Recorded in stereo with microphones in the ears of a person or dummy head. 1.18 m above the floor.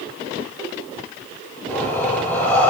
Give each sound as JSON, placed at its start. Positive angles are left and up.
{"t": 1.7, "sound": "breathing", "side_deg": 5, "distance_m": 6.0}